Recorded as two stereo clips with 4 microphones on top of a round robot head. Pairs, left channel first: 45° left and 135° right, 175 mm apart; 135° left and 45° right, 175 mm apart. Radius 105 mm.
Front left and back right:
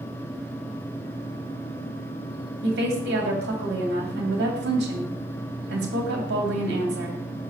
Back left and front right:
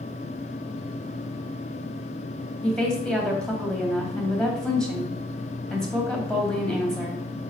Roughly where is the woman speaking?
Behind right.